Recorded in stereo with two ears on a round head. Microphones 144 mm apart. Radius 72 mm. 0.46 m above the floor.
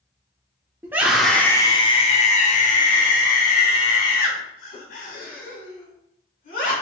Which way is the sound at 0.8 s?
15° right (ahead or behind).